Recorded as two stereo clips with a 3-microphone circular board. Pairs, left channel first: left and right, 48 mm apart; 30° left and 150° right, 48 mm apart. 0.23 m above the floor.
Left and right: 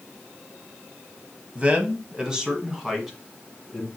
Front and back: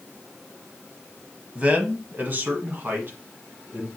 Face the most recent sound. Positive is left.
turn(degrees=175)